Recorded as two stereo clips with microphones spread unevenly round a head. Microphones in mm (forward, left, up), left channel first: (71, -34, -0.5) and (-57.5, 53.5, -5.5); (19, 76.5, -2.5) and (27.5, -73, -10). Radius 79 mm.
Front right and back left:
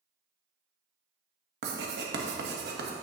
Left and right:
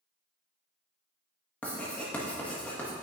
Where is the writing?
175° left, 1.1 m.